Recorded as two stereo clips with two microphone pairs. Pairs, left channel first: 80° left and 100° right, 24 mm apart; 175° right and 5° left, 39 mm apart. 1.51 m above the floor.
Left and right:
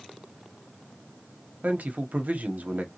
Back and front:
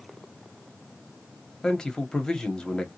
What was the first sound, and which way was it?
A man speaking, 100° right.